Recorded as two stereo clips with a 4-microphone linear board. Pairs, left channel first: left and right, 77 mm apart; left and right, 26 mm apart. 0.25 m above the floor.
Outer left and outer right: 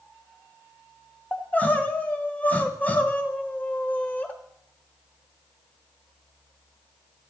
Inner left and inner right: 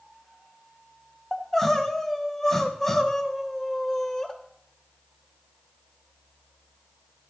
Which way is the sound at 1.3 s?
20° left (ahead or behind).